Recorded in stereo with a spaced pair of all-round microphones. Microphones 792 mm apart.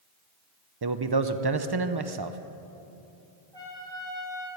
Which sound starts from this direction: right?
A man speaking, at 0.8 s.